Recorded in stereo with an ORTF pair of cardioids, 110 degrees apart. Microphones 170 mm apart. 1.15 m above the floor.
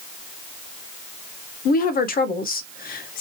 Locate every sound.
1.6 s a woman speaking: 60° left, 0.7 m